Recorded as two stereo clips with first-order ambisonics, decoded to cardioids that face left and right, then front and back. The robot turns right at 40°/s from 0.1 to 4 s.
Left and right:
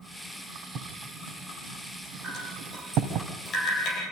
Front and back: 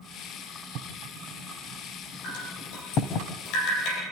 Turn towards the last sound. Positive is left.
turn(degrees=40)